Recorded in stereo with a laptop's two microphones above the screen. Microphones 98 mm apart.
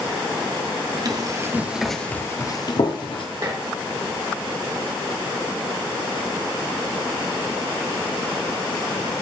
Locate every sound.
1.1 s running footsteps: 45° right (ahead or behind), 1.2 m; by 3.2 s 60° left (ahead or behind), 1.6 m
3.4 s dishes clattering: 40° right (ahead or behind), 2 m